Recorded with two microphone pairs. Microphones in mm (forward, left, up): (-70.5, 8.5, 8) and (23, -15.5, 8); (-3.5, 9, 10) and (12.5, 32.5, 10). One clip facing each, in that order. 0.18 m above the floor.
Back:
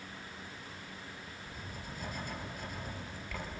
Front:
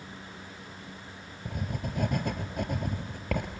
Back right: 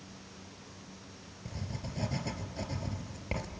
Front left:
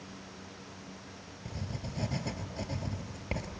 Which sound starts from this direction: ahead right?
Writing, at 1.4 s.